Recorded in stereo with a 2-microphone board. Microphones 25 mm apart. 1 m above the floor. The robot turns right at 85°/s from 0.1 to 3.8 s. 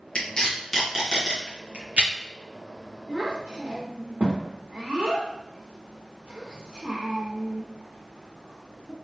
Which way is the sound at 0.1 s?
40° left (ahead or behind).